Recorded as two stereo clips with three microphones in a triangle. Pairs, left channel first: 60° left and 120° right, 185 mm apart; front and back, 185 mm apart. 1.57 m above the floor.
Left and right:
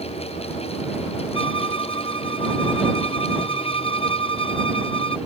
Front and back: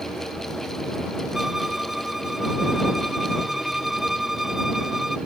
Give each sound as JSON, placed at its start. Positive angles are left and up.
{"t": 1.3, "sound": "a violin", "azimuth_deg": 90}